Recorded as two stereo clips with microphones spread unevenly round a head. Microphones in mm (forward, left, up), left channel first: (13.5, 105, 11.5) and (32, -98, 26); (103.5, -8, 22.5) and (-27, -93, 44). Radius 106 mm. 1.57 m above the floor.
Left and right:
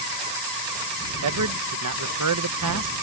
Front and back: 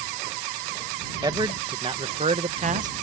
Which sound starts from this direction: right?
A man speaking, at 1.2 s.